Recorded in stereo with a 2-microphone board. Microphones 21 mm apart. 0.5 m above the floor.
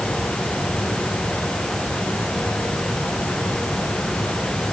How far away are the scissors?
No scissors in this recording.